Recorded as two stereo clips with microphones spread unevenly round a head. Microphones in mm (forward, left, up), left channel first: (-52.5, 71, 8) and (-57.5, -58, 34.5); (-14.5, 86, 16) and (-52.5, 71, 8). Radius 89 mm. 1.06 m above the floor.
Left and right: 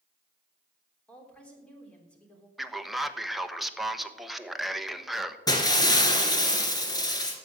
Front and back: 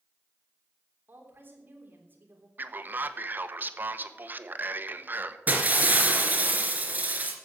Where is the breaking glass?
150° left, 2.5 m.